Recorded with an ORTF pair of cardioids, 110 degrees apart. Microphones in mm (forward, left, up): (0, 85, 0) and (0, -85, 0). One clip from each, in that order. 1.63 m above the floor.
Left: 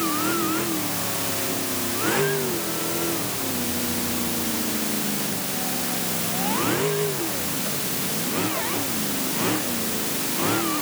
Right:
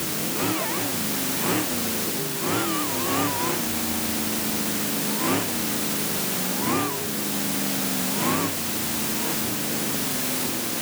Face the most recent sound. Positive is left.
No sound to turn to.